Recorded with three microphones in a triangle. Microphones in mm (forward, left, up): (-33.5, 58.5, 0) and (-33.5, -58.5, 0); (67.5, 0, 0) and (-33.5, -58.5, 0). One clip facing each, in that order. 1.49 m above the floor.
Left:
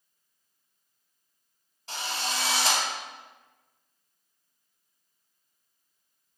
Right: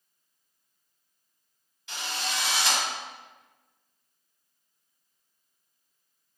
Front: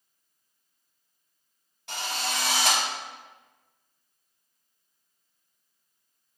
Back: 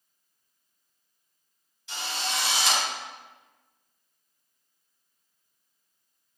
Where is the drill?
45° left, 5.5 m.